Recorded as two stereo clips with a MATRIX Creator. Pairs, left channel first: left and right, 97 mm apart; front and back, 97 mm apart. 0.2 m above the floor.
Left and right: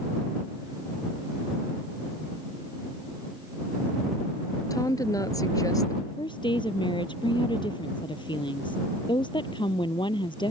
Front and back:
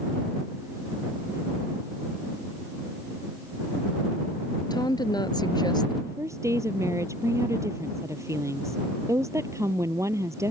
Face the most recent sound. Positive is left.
turn(degrees=120)